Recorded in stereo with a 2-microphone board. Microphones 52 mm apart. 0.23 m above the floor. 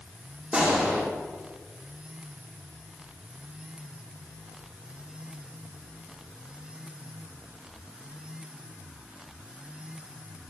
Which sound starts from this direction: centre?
A gunshot, at 0.5 s.